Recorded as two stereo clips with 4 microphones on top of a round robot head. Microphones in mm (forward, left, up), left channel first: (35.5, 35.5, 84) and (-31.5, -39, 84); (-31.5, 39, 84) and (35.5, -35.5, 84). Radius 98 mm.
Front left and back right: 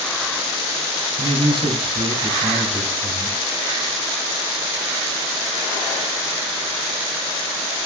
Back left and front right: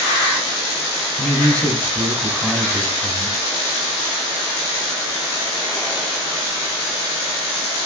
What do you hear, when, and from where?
1.2 s a man speaking: 150° right, 3.5 m